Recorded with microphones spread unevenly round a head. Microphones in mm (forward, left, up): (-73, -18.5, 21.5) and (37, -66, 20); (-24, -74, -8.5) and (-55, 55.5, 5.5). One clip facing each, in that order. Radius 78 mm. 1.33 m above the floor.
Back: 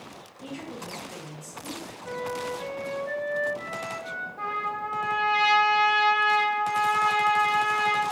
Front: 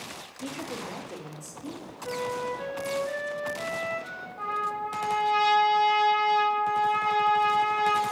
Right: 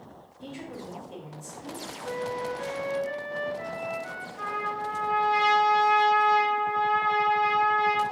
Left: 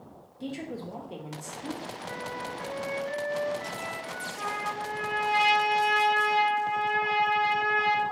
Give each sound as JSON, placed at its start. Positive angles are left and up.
{"t": 0.4, "sound": "a woman speaking", "azimuth_deg": 45, "distance_m": 0.6}
{"t": 2.0, "sound": "a flute", "azimuth_deg": -105, "distance_m": 0.9}
{"t": 4.4, "sound": "a trumpet", "azimuth_deg": 100, "distance_m": 2.0}